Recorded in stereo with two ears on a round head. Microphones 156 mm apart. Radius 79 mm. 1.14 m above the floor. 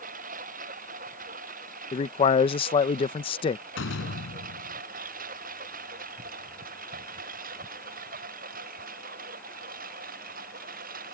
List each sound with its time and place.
0.0 s a lawn mower: 50° right (ahead or behind); by 11.2 s 55° right (ahead or behind)
1.9 s a man speaking: 30° left (ahead or behind)
3.8 s a door slam: 85° left